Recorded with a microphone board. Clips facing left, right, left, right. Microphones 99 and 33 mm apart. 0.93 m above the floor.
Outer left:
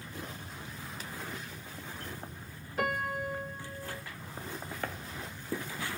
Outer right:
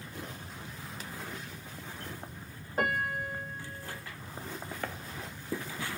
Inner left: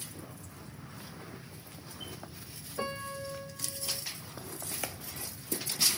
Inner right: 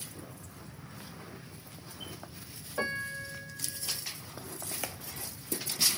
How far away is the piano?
About 1.3 m.